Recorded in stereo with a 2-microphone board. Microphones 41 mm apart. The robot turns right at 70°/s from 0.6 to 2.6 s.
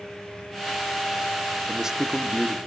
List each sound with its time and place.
1.7 s a man speaking: 30° right, 0.7 m; by 2.6 s 35° left, 0.7 m